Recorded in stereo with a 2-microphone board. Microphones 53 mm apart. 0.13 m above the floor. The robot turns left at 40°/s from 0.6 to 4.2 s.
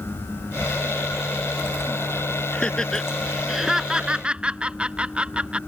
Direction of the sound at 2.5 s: 20° left (ahead or behind).